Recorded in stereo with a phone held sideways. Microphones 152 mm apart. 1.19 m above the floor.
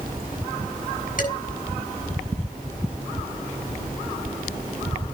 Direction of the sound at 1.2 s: 60° left (ahead or behind).